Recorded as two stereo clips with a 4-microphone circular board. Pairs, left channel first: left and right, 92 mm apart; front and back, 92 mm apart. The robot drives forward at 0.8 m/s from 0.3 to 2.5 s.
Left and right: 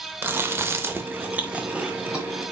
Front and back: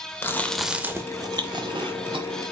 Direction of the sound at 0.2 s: 45° right.